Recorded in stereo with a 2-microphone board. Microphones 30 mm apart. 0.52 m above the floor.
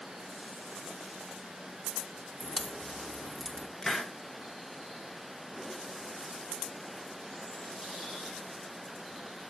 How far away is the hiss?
About 0.7 m.